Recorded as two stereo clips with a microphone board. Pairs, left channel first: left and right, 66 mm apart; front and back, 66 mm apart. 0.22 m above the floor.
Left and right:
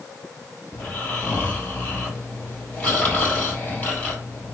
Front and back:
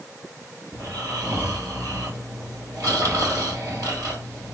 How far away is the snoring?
About 3 m.